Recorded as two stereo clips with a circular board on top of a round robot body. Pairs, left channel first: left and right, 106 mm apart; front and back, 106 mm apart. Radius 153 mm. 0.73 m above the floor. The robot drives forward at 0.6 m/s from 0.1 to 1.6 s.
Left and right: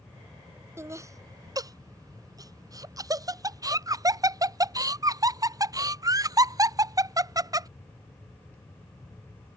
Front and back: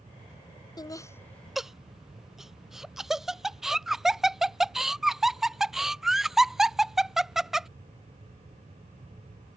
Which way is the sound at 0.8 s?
35° right.